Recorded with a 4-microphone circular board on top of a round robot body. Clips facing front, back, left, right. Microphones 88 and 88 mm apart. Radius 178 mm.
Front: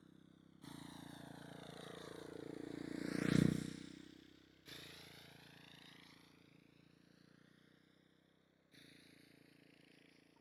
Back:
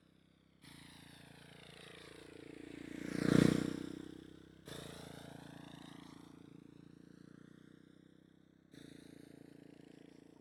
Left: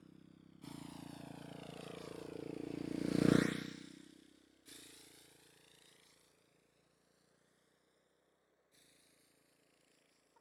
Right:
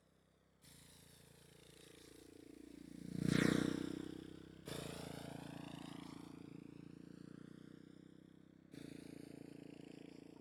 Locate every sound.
0.0 s a motorcycle: 60° left; by 10.4 s 120° right